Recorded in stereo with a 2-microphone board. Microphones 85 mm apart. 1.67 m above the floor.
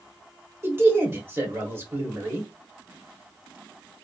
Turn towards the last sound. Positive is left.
turn(degrees=-25)  # may be behind; listen again after turning